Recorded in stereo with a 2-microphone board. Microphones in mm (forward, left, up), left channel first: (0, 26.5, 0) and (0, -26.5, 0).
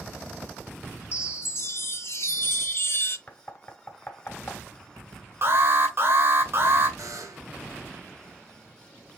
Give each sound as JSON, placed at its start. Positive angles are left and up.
{"t": 1.1, "sound": "a chime", "side_deg": 50, "distance_m": 0.6}
{"t": 3.3, "sound": "knocking", "side_deg": 35, "distance_m": 1.1}
{"t": 5.4, "sound": "an alarm", "side_deg": -50, "distance_m": 1.9}
{"t": 7.0, "sound": "a buzzer", "side_deg": -80, "distance_m": 0.8}